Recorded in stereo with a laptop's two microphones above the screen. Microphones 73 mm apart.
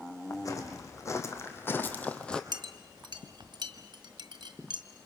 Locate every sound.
0.3 s footsteps: 50° left (ahead or behind), 4 m; by 2.4 s 10° left (ahead or behind), 2 m
2.5 s a clink: 85° right, 1.6 m